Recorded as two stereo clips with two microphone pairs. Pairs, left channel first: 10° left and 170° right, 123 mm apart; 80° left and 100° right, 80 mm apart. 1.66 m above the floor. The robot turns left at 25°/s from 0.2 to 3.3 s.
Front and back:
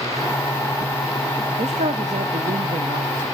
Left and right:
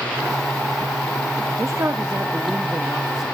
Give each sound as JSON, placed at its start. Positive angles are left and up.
{"t": 1.6, "sound": "a man speaking", "azimuth_deg": -150, "distance_m": 0.7}